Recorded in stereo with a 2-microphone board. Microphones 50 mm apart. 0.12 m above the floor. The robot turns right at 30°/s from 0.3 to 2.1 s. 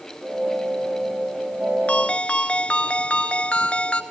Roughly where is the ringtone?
Left.